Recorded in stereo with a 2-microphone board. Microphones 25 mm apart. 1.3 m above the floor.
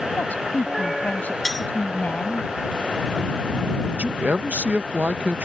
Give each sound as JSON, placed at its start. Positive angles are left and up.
{"t": 0.1, "sound": "a woman speaking", "side_deg": 85}
{"t": 1.4, "sound": "cutlery clinking", "side_deg": 5}
{"t": 3.9, "sound": "a man speaking", "side_deg": -70}